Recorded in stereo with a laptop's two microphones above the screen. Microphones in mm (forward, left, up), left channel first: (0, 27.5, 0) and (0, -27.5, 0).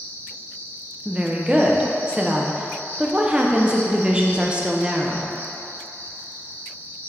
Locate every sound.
0.0 s an insect: 45° right (ahead or behind), 1.3 m
1.1 s a woman speaking: 15° right (ahead or behind), 0.5 m